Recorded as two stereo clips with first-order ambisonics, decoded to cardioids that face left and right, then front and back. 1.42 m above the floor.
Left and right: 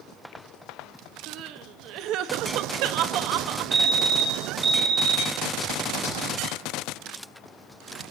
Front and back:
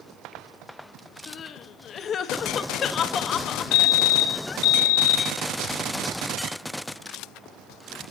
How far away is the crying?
About 0.9 m.